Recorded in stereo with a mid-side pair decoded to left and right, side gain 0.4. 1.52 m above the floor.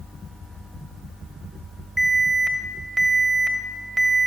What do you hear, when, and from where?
2.0 s an alarm: 10° right, 1.7 m